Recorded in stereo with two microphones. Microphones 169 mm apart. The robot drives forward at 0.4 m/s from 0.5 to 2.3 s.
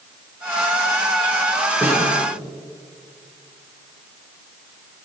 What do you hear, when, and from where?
1.8 s a snare drum: 15° right (ahead or behind), 6 m